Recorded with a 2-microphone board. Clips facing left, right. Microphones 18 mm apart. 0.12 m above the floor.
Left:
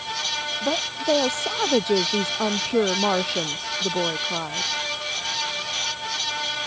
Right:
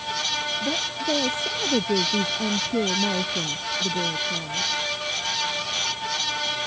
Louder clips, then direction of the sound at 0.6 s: Left 1 dB; 45° left (ahead or behind).